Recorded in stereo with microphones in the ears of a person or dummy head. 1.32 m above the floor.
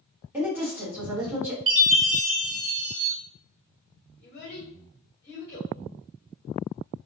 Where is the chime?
75° right (ahead or behind), 1.4 m.